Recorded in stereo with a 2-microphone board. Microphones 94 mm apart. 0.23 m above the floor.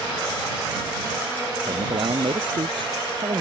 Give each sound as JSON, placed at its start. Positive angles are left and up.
{"t": 1.7, "sound": "a man speaking", "side_deg": -65}